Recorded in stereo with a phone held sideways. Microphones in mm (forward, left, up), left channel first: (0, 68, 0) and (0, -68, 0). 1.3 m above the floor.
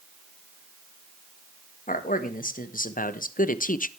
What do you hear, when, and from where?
1.9 s a man speaking: 90° left, 1.6 m; by 3.9 s 80° left, 0.6 m